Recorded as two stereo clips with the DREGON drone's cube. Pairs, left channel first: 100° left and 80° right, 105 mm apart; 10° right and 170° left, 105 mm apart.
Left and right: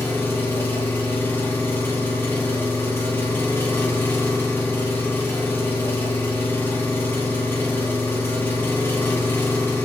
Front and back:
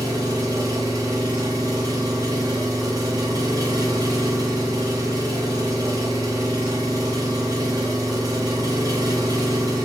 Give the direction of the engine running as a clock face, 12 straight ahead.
7 o'clock.